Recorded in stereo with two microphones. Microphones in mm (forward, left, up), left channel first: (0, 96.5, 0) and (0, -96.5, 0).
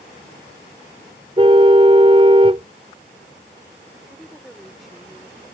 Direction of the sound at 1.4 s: 30° right (ahead or behind).